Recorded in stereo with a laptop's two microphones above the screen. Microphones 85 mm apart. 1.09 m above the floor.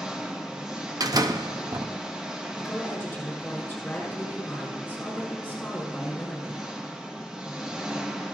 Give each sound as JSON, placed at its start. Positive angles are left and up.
{"t": 0.0, "sound": "an engine running", "side_deg": -10, "distance_m": 0.9}
{"t": 1.0, "sound": "a door slam", "side_deg": -50, "distance_m": 0.7}
{"t": 2.6, "sound": "a woman speaking", "side_deg": 20, "distance_m": 5.5}